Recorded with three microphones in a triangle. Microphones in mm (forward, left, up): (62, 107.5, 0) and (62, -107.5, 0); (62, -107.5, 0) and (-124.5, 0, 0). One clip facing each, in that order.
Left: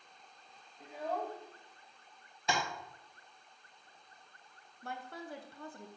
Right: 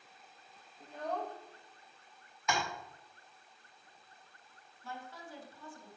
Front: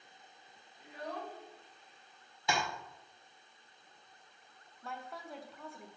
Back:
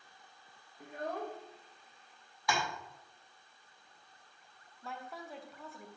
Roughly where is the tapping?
Ahead left.